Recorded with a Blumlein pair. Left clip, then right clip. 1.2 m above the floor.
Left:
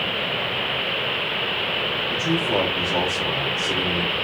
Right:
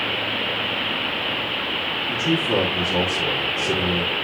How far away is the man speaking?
About 2.5 m.